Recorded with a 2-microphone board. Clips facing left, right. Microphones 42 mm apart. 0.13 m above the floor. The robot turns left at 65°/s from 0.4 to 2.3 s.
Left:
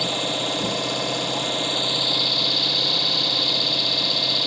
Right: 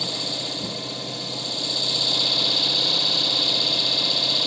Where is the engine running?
125° left, 1.3 m; by 4.5 s straight ahead, 1.3 m.